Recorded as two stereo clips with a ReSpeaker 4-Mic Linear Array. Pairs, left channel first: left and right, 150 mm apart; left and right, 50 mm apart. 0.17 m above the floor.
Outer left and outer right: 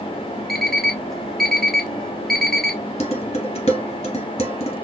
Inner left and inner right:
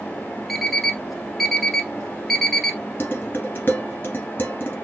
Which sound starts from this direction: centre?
An alarm clock, at 0.5 s.